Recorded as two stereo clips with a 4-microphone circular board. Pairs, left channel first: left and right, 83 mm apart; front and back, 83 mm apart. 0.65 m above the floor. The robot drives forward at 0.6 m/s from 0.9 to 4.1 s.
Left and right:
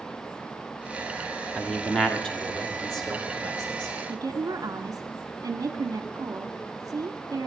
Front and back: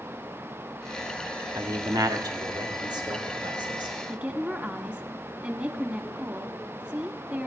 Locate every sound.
1.6 s a man speaking: 170° left, 1.5 m; by 4.0 s 175° left, 2.5 m
4.1 s a woman speaking: 115° right, 1.4 m